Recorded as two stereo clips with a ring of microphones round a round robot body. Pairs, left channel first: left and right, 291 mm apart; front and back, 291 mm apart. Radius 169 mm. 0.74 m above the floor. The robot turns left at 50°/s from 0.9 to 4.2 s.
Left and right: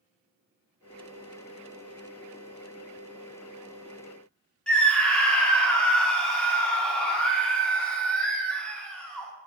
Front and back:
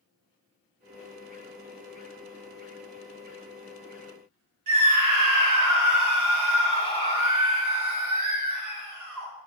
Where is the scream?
175° left, 2.5 m.